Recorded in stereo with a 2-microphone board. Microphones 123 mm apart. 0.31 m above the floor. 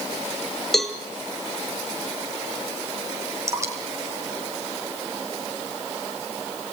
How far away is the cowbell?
About 3 m.